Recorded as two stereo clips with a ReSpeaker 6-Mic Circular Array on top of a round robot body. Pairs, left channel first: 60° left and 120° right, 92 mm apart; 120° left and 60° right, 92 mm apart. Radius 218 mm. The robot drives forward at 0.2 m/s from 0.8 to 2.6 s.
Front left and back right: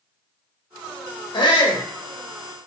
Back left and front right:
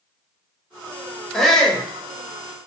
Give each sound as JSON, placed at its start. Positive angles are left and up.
{"t": 1.3, "sound": "a shout", "azimuth_deg": 35, "distance_m": 0.9}